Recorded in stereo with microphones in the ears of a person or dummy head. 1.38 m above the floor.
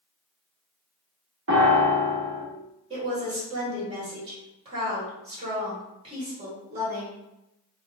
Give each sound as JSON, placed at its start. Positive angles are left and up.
{"t": 1.5, "sound": "a piano", "side_deg": -65, "distance_m": 0.7}
{"t": 2.9, "sound": "a woman speaking", "side_deg": -30, "distance_m": 1.9}